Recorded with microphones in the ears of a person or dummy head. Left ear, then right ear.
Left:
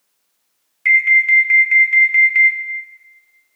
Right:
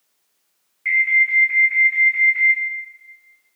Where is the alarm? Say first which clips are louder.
Left 4 dB; 70° left (ahead or behind), 0.9 m.